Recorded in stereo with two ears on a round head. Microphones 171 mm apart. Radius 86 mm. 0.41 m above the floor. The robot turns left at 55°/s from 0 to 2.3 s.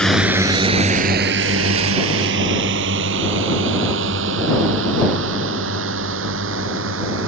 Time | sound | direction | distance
0.0 | a drone | 5° left (ahead or behind) | ?